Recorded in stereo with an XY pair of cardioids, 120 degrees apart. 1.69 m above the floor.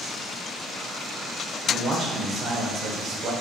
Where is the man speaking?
65° right, 1.2 m.